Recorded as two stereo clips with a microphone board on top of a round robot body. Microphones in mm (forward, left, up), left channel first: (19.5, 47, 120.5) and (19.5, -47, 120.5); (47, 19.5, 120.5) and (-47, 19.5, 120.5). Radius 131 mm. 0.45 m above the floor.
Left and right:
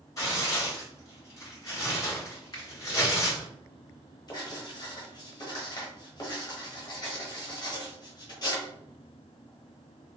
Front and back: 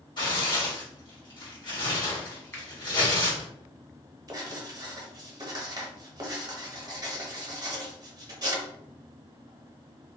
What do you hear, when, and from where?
0.2 s tearing paper: 40° left, 1.9 m
2.5 s a finger snap: 60° left, 1.7 m
4.3 s writing: 135° left, 1.0 m